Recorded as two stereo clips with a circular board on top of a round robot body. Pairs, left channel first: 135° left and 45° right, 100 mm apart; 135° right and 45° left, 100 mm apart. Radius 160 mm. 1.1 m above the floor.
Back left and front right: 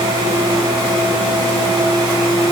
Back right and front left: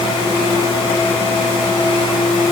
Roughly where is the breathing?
No breathing in this recording.